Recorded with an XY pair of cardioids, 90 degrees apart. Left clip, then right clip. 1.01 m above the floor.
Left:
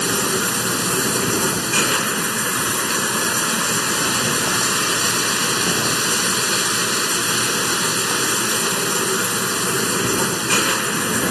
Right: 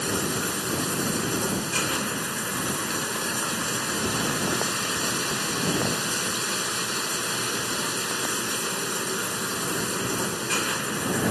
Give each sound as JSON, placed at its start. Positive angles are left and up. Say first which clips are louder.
{"t": 0.0, "sound": "running water", "louder": "left 7 dB", "azimuth_deg": 60}